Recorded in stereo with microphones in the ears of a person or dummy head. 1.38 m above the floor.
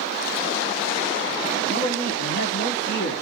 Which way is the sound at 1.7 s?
75° left (ahead or behind).